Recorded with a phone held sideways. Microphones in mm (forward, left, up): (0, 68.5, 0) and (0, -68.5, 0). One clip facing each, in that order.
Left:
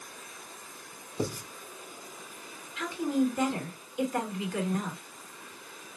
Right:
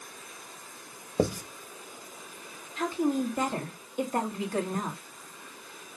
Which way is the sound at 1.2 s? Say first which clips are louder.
Right 6 dB; 80° right.